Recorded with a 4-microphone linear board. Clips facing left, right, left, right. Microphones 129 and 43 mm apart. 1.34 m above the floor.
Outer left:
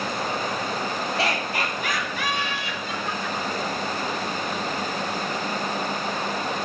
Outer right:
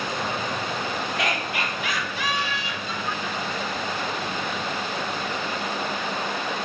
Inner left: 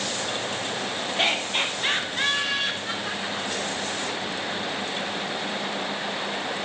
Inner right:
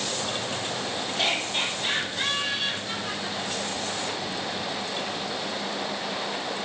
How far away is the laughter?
About 2 m.